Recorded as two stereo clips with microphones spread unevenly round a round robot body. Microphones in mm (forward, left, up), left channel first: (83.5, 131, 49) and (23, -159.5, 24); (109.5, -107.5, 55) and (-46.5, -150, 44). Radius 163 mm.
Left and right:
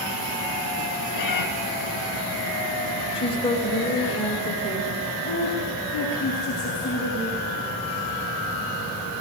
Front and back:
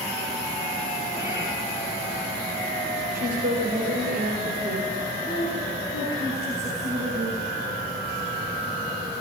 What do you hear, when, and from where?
1.1 s a cat meowing: 115° left, 2.5 m
3.1 s a woman speaking: 155° left, 4 m
5.2 s a woman speaking: 160° left, 9 m